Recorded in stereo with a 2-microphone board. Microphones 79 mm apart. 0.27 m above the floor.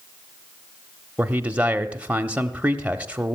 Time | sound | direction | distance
1.2 | a man speaking | 20° right (ahead or behind) | 0.9 m